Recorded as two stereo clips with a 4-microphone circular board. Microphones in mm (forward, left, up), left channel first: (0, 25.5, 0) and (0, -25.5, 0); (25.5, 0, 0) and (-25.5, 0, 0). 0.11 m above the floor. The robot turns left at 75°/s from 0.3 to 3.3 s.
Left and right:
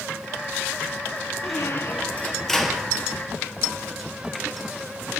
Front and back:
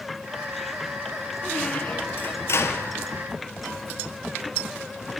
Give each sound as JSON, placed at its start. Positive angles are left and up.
{"t": 1.4, "sound": "a squeak", "azimuth_deg": 85, "distance_m": 1.6}